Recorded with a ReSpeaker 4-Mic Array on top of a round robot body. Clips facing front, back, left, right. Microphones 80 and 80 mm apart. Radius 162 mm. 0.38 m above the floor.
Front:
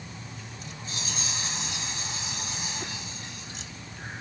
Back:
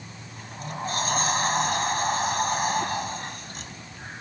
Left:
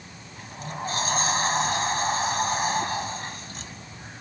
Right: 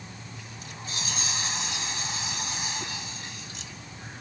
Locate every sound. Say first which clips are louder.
0.4 s a sliding door: back 8 dB, left 13 dB; 135° left